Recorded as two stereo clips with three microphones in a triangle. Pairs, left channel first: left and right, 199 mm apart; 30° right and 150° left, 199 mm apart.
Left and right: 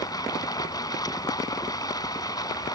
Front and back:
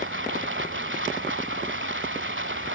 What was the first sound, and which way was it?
Running water, 160° left.